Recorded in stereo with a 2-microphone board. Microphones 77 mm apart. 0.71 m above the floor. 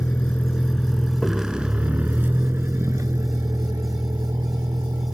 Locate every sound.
0.0 s a vehicle: 25° left (ahead or behind); by 5.2 s 65° right (ahead or behind)